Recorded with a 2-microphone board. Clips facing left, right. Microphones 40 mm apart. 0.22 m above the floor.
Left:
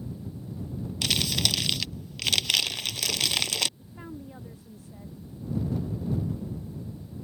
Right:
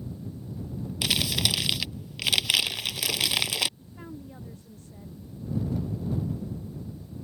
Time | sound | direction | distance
1.0 | crumpling | 10° right (ahead or behind) | ?
3.8 | a woman speaking | 10° left (ahead or behind) | ?